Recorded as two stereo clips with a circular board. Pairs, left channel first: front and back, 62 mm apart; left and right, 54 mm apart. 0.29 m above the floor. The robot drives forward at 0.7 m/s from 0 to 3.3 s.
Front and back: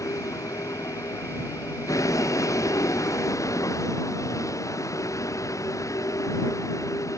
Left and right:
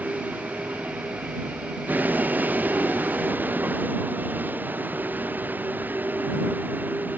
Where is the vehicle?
30° right; by 7.2 s 35° right.